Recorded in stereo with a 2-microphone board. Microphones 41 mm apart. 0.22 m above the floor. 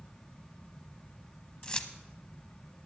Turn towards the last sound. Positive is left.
turn(degrees=25)  # may be behind; listen again after turning